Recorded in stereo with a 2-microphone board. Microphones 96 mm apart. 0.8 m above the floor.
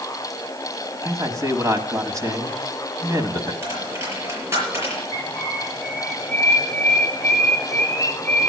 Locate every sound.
1.0 s a man speaking: 35° right (ahead or behind), 1.3 m
3.6 s a dropped coin: 25° right (ahead or behind), 6 m
5.1 s a bird: 30° left (ahead or behind), 2 m